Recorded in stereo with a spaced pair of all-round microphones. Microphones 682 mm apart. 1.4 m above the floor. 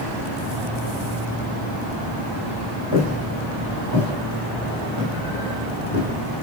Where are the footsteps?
40° left (ahead or behind), 4 m; by 6.2 s 10° left (ahead or behind), 3 m.